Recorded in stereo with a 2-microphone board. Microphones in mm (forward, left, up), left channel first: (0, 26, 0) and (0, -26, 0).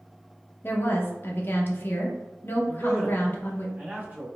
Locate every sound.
0.6 s a woman speaking: 40° left (ahead or behind), 0.7 m
2.7 s a man speaking: 35° right (ahead or behind), 1.5 m